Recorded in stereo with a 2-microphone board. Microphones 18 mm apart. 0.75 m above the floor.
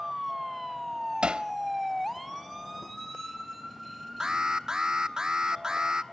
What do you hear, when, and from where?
1.2 s hammering: 85° right, 0.8 m
4.2 s an alarm: 40° right (ahead or behind), 0.9 m